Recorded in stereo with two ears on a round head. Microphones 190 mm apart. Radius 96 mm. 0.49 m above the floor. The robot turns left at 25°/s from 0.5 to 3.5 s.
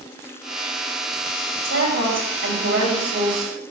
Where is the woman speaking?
85° right, 3 m; by 3.5 s 130° right, 3 m.